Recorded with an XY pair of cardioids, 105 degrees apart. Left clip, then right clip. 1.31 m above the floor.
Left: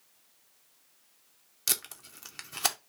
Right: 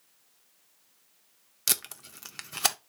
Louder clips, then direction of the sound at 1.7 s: Right 2 dB; 25° right.